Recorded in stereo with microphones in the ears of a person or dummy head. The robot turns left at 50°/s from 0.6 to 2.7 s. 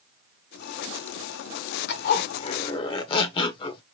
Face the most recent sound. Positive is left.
turn(degrees=35)